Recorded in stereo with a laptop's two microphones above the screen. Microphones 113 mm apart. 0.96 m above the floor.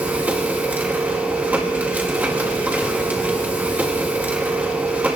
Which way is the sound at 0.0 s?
15° right (ahead or behind).